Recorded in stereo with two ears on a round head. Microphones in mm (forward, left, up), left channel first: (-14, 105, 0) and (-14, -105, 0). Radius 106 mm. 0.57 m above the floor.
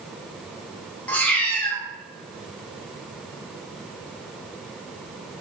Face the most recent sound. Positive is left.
turn(degrees=5)  # may be behind; listen again after turning